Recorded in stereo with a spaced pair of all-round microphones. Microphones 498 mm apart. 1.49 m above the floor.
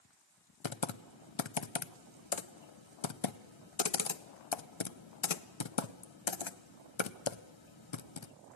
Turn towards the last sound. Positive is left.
turn(degrees=65)  # may be behind; listen again after turning